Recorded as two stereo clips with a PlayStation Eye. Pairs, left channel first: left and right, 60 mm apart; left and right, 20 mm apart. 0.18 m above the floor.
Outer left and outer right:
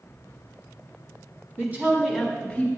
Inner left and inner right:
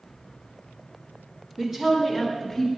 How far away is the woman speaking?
About 1.5 m.